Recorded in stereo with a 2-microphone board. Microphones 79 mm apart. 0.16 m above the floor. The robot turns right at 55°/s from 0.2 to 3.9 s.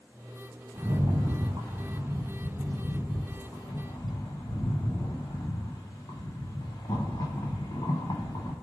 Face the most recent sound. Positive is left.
turn(degrees=55)